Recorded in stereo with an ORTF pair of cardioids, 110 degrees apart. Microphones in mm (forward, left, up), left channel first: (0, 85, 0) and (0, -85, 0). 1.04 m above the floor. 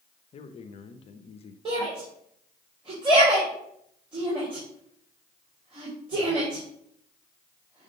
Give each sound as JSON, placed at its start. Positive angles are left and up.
{"t": 0.3, "sound": "a man speaking", "azimuth_deg": 35, "distance_m": 0.7}
{"t": 1.6, "sound": "a shout", "azimuth_deg": -30, "distance_m": 3.0}